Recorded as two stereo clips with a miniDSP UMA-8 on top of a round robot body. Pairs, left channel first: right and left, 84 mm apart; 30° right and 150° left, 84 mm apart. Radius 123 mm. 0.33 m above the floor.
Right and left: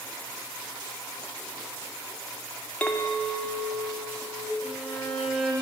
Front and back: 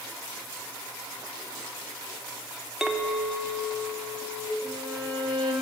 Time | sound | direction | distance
2.8 | a clink | 135° right | 0.7 m
4.6 | a violin | straight behind | 1.2 m